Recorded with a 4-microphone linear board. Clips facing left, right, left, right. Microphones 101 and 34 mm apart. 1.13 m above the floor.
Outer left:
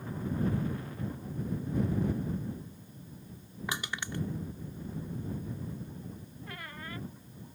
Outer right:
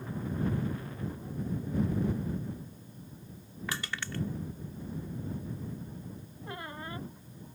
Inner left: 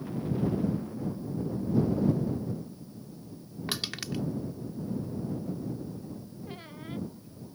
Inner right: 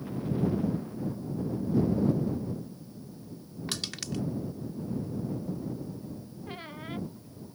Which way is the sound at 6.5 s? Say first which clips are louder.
Outer right 4 dB, inner right 4 dB; 25° right (ahead or behind).